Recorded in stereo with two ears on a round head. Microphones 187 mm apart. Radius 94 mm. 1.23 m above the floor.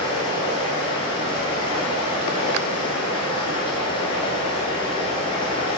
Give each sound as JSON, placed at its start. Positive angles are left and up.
{"t": 0.0, "sound": "running water", "side_deg": 25, "distance_m": 6.5}